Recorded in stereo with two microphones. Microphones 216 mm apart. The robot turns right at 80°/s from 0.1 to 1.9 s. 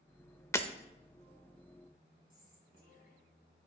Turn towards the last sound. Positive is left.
turn(degrees=40)  # may be behind; listen again after turning